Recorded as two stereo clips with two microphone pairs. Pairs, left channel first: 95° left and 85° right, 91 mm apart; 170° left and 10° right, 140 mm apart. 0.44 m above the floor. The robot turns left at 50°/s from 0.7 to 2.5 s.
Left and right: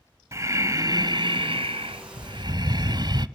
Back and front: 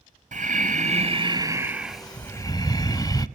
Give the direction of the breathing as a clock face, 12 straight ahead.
1 o'clock.